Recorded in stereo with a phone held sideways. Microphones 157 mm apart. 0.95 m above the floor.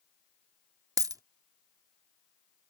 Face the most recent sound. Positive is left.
turn(degrees=-20)  # may be behind; listen again after turning